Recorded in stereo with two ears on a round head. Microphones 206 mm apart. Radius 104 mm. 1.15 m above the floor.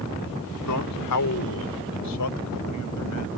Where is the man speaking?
85° left; by 3.3 s 90° left.